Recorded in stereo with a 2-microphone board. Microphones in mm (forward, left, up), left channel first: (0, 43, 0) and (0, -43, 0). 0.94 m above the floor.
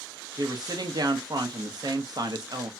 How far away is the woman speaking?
About 1.0 m.